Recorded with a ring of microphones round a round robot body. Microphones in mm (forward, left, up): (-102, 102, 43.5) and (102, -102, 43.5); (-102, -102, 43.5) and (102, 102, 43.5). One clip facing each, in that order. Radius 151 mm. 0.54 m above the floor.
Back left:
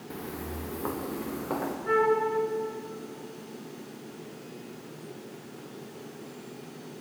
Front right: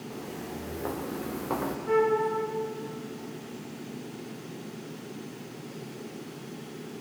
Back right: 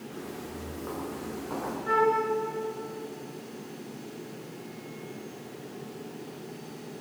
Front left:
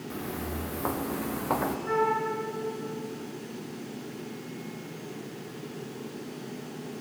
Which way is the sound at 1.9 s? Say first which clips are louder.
Front right 1 dB, back right 4 dB; 170° right.